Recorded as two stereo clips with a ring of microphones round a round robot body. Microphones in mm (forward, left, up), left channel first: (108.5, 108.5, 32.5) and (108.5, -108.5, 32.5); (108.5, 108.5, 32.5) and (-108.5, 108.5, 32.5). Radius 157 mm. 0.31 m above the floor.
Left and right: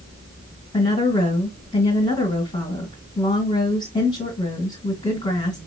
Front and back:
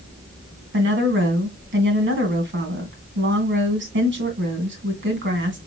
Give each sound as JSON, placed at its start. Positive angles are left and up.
{"t": 0.7, "sound": "a woman speaking", "azimuth_deg": 160, "distance_m": 2.5}